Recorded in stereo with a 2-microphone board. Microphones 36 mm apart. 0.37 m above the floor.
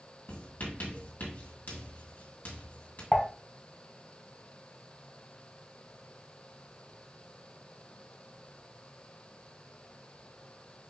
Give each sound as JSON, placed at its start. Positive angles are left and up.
{"t": 0.3, "sound": "writing", "side_deg": 60, "distance_m": 2.5}
{"t": 3.1, "sound": "dishes clattering", "side_deg": 20, "distance_m": 1.6}